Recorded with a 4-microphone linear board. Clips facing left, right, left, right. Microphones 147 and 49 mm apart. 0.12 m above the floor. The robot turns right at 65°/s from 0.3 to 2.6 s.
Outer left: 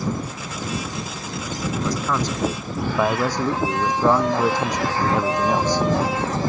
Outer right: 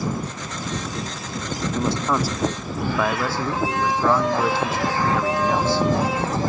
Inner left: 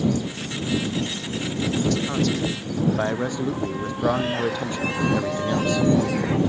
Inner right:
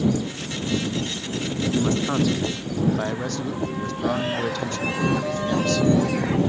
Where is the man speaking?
40° right; by 5.9 s 15° left.